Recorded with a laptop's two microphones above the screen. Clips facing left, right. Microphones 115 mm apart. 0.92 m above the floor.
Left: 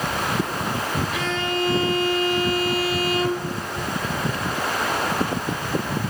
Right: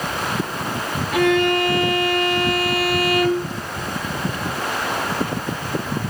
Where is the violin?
65° right (ahead or behind), 0.8 m.